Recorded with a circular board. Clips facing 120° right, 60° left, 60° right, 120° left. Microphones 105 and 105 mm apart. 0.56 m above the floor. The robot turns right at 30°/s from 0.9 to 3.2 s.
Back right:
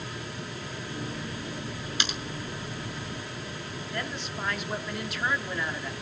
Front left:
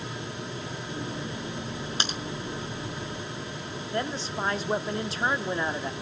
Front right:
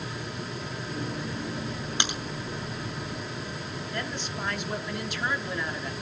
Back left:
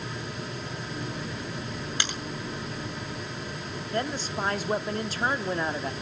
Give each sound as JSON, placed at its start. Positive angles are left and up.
{"t": 2.0, "sound": "a crack", "azimuth_deg": 10, "distance_m": 2.5}
{"t": 3.9, "sound": "a woman speaking", "azimuth_deg": 95, "distance_m": 0.7}